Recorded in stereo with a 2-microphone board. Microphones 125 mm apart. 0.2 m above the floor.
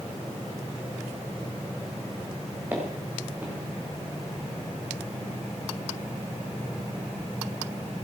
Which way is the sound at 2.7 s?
15° right (ahead or behind).